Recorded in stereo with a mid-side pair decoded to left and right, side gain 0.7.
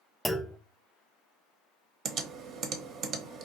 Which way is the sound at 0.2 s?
5° left.